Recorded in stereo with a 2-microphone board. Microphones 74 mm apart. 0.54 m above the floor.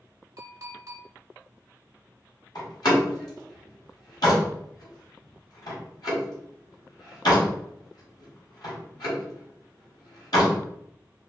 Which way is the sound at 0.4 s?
45° right (ahead or behind).